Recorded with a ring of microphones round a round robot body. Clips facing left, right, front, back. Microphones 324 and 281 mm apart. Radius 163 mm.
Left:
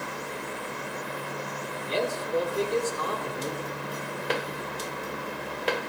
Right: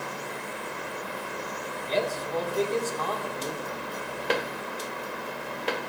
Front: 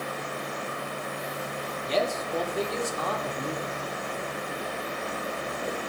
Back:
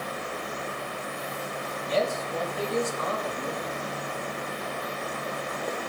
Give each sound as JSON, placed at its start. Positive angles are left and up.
{"t": 1.9, "sound": "a man speaking", "azimuth_deg": 15, "distance_m": 2.5}